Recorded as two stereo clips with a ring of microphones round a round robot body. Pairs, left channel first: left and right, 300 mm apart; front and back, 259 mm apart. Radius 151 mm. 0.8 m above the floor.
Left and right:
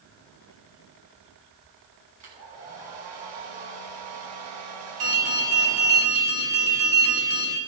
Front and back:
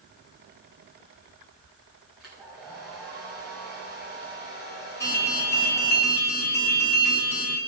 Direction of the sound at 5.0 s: 80° right.